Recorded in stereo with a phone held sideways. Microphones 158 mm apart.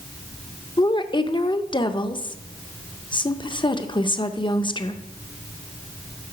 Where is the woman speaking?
35° left (ahead or behind), 0.5 m.